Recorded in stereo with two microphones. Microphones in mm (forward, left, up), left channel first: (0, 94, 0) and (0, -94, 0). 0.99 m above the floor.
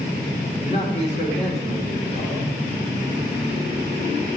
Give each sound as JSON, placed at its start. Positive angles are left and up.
{"t": 0.6, "sound": "a man speaking", "side_deg": 35, "distance_m": 2.5}